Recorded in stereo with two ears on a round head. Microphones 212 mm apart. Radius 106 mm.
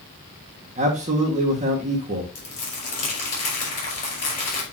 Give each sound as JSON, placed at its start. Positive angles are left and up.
{"t": 0.8, "sound": "a man speaking", "side_deg": -30, "distance_m": 1.8}
{"t": 2.4, "sound": "crumpling", "side_deg": 35, "distance_m": 4.5}